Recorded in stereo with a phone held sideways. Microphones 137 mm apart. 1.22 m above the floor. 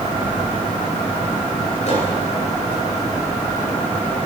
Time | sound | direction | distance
1.9 | a microwave | 50° left (ahead or behind) | 7.5 m